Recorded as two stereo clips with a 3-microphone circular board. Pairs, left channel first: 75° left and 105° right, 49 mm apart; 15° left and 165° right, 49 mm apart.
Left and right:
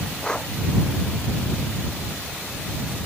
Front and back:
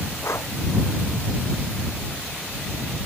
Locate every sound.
0.2 s breathing: straight ahead